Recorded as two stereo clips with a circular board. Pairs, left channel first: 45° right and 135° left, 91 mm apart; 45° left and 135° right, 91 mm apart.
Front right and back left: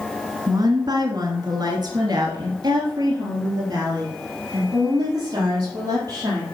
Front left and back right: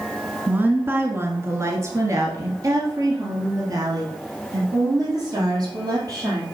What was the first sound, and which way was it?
A woman speaking, 160° left.